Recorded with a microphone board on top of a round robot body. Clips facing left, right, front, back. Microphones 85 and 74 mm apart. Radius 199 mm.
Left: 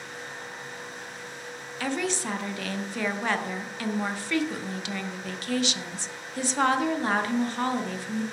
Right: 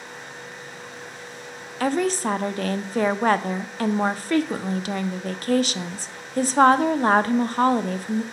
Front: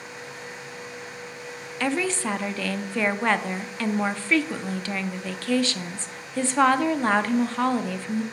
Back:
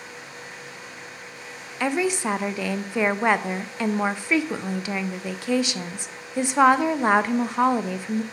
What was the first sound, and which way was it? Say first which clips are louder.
A woman speaking: right 7 dB, back 2 dB; 110° right.